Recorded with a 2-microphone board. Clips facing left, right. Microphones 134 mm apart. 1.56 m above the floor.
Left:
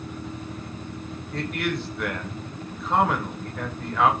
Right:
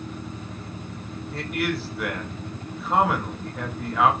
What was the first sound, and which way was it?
A man speaking, 5° right (ahead or behind).